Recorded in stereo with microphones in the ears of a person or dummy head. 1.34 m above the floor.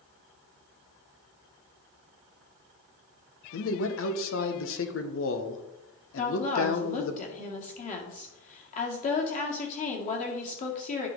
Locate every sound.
3.5 s a man speaking: 65° left (ahead or behind), 1.2 m
6.2 s a woman speaking: 35° left (ahead or behind), 2 m